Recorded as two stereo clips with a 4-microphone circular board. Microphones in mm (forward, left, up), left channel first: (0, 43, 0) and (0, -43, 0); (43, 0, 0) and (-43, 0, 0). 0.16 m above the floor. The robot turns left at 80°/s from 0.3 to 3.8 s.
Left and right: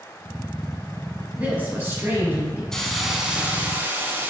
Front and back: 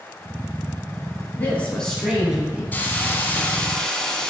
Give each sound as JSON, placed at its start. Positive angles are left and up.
{"t": 1.3, "sound": "a woman speaking", "azimuth_deg": -30, "distance_m": 1.1}
{"t": 2.7, "sound": "a hiss", "azimuth_deg": 20, "distance_m": 0.6}